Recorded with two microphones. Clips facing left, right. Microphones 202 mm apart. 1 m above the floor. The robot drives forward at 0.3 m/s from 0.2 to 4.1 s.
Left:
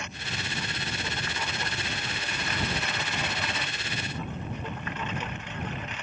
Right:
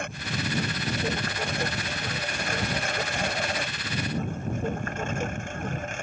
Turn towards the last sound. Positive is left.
turn(degrees=-45)  # may be behind; listen again after turning